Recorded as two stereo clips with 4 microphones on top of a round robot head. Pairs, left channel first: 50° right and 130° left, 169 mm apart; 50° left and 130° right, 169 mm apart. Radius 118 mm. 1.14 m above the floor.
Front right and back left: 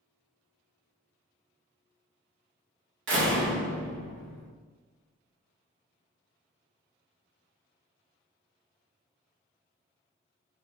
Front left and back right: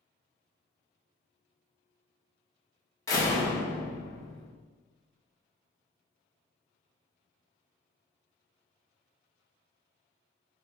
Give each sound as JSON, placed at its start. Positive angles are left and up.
{"t": 3.1, "sound": "a door slam", "azimuth_deg": 125, "distance_m": 1.3}